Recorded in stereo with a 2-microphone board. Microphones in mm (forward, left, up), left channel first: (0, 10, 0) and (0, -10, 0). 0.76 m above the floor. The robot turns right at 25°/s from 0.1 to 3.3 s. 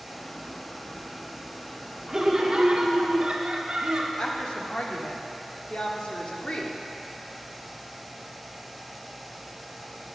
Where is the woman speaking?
60° left (ahead or behind), 1.4 m.